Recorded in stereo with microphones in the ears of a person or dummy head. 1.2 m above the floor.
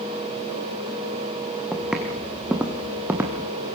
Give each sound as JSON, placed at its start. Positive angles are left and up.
{"t": 1.7, "sound": "footsteps", "side_deg": 0, "distance_m": 2.5}